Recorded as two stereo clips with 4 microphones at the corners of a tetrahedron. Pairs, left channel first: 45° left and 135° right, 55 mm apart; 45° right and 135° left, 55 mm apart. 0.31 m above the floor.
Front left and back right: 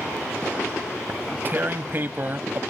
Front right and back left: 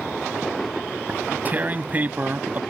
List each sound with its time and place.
1.1 s tearing paper: 175° right